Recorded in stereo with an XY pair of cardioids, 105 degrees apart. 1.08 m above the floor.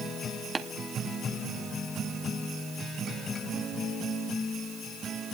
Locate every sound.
0.6 s tapping: 30° right, 1.0 m